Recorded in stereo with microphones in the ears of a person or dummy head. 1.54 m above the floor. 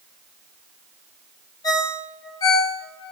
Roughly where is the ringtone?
Left.